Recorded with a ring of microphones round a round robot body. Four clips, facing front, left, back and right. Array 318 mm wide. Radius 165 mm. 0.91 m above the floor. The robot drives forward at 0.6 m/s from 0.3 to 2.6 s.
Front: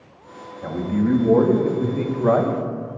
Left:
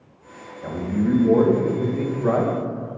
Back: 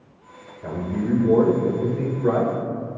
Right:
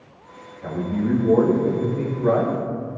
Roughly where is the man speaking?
Ahead.